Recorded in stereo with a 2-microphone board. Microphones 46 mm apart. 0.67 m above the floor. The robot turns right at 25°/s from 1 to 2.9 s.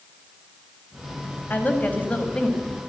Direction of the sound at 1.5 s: 135° left.